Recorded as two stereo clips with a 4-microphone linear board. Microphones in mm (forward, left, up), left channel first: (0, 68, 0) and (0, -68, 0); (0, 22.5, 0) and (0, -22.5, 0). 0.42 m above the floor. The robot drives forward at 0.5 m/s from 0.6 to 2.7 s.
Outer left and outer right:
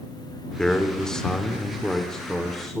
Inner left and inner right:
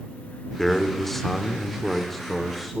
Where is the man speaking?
5° left (ahead or behind), 0.8 m.